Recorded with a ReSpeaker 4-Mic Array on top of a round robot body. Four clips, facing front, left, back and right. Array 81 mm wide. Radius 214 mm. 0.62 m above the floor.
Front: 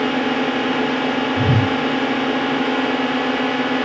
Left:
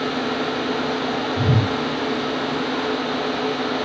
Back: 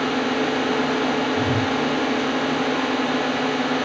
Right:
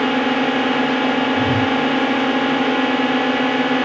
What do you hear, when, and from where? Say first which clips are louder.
0.0 s a drone: right 6 dB, front 3 dB; 70° right
1.4 s a whoosh: right 4 dB, front 3 dB; 35° left